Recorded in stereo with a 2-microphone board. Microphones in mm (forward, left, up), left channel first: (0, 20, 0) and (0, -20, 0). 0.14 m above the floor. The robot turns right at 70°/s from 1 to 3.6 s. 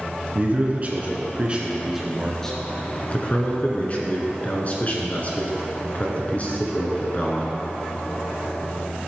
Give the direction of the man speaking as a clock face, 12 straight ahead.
3 o'clock.